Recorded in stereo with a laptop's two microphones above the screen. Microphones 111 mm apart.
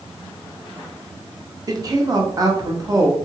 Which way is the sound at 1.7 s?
30° right (ahead or behind).